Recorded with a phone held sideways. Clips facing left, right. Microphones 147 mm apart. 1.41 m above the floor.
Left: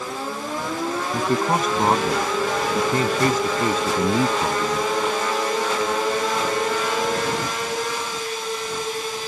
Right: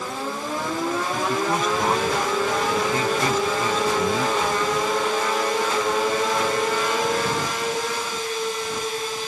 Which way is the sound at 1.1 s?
40° left (ahead or behind).